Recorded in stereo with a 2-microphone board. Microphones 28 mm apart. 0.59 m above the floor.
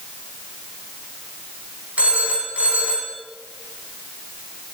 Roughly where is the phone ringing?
Right.